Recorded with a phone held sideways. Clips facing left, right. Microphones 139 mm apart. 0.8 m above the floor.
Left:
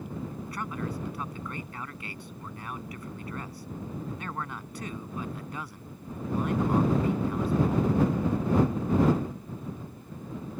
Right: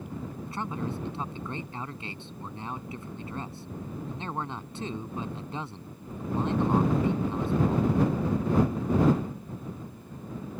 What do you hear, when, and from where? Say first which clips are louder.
0.5 s a man speaking: right 4 dB; 25° right (ahead or behind)